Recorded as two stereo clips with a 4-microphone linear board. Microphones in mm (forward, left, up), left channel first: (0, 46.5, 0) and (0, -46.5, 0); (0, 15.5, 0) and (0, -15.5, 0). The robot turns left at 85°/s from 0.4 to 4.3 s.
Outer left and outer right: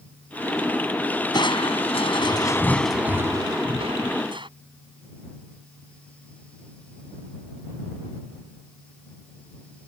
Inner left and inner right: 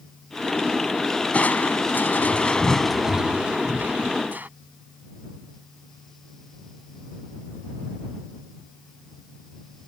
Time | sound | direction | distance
1.3 | crushing | 130° left | ?